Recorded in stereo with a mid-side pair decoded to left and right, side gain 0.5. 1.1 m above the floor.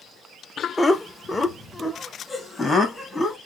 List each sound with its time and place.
0.8 s laughter: 20° left, 0.7 m